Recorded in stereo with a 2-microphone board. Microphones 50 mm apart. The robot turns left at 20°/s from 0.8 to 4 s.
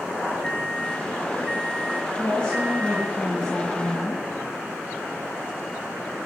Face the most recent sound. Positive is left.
turn(degrees=-10)